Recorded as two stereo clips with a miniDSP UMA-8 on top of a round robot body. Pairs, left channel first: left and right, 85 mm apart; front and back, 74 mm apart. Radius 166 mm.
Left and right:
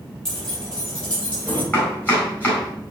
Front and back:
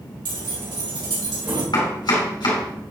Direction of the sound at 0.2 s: 175° left.